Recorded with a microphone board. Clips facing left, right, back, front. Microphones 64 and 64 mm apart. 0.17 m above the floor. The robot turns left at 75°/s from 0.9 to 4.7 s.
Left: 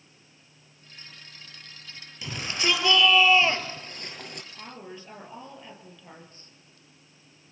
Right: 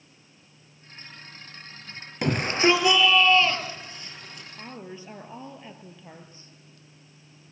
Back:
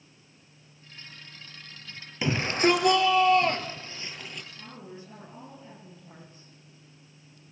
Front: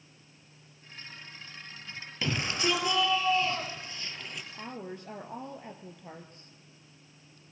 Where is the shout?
110° right, 3.5 m; by 4.4 s 80° left, 3.5 m.